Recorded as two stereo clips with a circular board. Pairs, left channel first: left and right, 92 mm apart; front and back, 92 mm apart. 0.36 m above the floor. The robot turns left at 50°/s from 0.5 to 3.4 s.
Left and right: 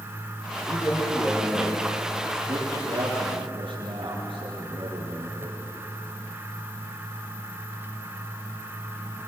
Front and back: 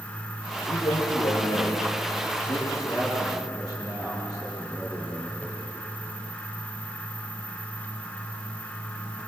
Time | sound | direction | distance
0.6 | a man speaking | 45° left | 6.5 m